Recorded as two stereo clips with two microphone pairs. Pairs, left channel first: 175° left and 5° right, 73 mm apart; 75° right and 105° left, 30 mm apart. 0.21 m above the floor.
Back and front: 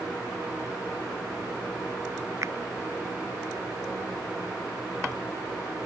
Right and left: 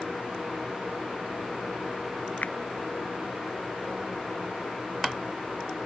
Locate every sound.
2.4 s a finger snap: 55° right